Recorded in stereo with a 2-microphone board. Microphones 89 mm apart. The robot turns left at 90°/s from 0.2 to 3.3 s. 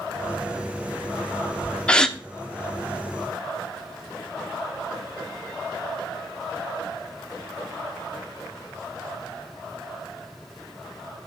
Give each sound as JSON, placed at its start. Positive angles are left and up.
{"t": 1.9, "sound": "a gasp", "side_deg": 15, "distance_m": 0.7}